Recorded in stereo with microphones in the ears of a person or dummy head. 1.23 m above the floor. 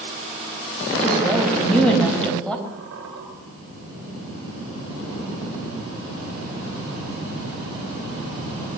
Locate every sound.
1.0 s a woman speaking: 5° left (ahead or behind), 5.5 m
2.7 s a squeak: 70° right (ahead or behind), 9.5 m